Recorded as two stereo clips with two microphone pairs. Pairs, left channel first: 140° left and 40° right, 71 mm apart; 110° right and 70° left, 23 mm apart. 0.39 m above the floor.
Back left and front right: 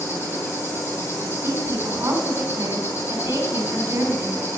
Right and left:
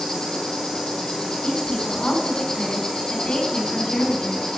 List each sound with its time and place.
0.0 s an insect: 165° right, 2 m
1.4 s a woman speaking: 85° right, 3.5 m